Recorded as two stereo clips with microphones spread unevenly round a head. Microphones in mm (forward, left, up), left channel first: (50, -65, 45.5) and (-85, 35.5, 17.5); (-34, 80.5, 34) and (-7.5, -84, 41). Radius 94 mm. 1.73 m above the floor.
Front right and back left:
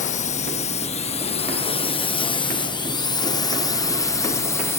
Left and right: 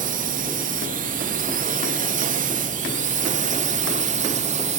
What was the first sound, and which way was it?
A drone, 75° right.